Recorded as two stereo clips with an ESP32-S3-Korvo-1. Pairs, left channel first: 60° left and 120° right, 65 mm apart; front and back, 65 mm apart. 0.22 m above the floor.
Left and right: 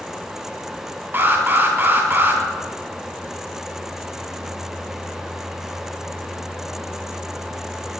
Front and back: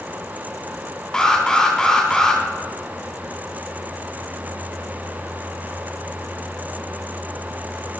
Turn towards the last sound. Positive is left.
turn(degrees=-75)